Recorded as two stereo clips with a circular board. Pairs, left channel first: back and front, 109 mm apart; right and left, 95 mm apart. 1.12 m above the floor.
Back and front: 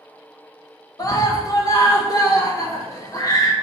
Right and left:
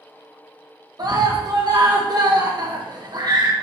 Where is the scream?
125° left, 1.2 m.